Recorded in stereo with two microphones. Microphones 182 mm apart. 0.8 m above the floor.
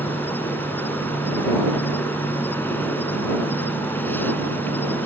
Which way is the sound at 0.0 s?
10° left (ahead or behind).